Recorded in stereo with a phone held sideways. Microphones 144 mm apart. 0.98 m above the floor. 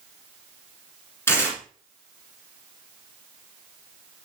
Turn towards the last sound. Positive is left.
turn(degrees=20)  # may be behind; listen again after turning